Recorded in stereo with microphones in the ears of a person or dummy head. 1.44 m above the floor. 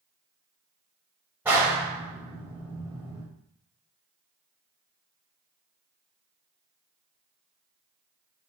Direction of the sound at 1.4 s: 10° right (ahead or behind).